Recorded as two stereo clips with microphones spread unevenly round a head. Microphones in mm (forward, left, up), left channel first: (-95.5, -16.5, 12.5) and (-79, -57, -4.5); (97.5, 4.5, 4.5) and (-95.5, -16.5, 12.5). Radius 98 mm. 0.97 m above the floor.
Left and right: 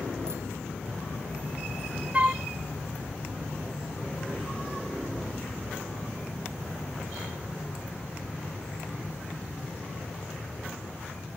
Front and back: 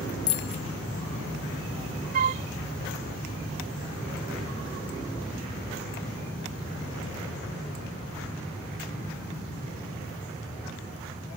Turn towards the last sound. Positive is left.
turn(degrees=-135)